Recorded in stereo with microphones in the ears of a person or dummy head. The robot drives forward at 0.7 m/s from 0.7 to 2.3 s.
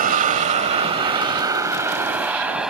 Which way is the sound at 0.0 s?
40° right (ahead or behind).